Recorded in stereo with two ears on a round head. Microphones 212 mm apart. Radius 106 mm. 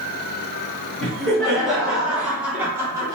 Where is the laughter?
Centre (ahead or behind), 2.0 m; by 3.2 s 15° right (ahead or behind), 1.1 m.